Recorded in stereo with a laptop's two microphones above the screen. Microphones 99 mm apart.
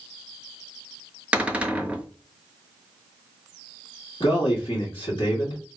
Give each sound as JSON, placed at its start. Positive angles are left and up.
{"t": 1.3, "sound": "a cupboard door", "side_deg": -15, "distance_m": 0.6}
{"t": 4.2, "sound": "a man speaking", "side_deg": 65, "distance_m": 1.8}